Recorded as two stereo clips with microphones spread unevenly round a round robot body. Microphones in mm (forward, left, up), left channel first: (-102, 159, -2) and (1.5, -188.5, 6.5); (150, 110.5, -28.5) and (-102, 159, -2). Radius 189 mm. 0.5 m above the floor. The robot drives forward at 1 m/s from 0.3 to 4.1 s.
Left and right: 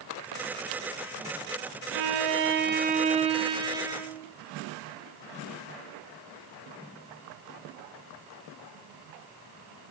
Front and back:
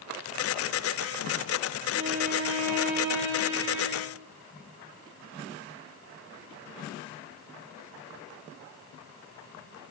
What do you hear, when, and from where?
1.9 s a violin: 110° right, 1.2 m; by 4.3 s 155° right, 3 m